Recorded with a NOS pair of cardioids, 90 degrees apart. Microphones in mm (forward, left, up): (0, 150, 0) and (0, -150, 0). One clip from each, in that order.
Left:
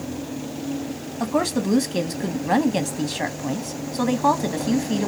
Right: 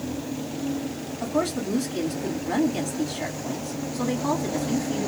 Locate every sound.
1.2 s a woman speaking: 65° left, 0.8 m